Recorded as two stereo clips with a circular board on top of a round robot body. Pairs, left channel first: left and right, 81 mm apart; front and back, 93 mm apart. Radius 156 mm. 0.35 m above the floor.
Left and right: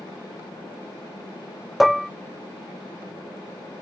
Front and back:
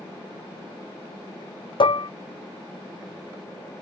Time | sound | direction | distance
1.8 | dishes clattering | straight ahead | ?